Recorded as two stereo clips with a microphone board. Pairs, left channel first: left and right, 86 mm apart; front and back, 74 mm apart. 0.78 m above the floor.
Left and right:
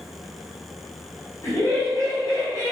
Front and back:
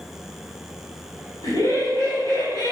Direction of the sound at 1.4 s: 35° left.